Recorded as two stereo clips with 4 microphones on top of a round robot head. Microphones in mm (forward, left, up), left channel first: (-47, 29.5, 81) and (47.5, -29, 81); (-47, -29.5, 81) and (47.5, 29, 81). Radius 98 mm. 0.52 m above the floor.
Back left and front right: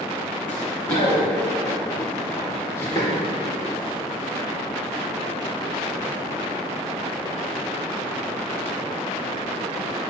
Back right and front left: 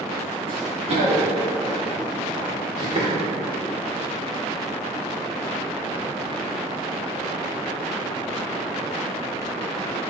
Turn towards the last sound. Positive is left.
turn(degrees=75)